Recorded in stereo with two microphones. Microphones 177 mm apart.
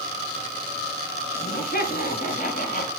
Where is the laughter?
65° left (ahead or behind), 3 m; by 2.9 s 45° left (ahead or behind), 2.0 m.